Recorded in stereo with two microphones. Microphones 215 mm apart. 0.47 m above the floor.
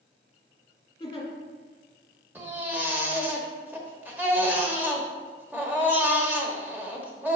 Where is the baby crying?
10° right (ahead or behind), 1.0 m.